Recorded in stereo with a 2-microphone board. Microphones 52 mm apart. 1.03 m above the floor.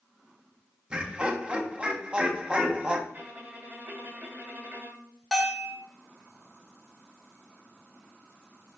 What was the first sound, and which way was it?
Laughter, 20° right (ahead or behind).